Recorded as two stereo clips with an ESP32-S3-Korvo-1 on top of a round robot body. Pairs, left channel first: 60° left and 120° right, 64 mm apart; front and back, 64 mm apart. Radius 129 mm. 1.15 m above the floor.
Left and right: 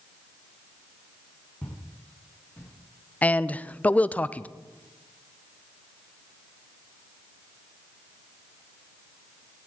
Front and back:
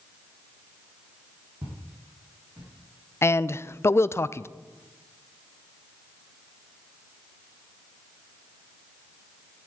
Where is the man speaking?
5° left, 0.5 m.